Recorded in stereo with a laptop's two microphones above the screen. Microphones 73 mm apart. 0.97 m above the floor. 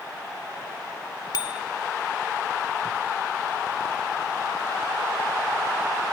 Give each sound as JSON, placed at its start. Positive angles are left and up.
{"t": 1.3, "sound": "a bicycle bell", "side_deg": 65, "distance_m": 2.5}